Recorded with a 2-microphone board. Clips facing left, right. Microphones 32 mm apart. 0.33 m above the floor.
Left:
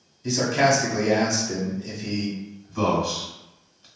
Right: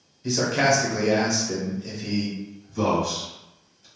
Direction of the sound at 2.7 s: 30° left (ahead or behind).